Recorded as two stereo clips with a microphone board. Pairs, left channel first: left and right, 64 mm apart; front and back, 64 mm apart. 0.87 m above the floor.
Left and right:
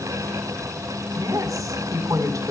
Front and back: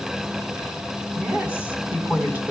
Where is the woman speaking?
115° right, 8 m.